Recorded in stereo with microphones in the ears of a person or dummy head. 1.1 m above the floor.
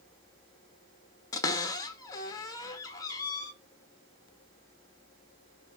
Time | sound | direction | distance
1.3 | a cupboard door | 20° left (ahead or behind) | 0.8 m